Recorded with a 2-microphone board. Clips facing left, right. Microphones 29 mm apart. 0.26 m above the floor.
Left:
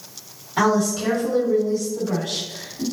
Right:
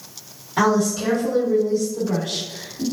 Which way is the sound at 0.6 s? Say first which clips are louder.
Right 1 dB; 5° left (ahead or behind).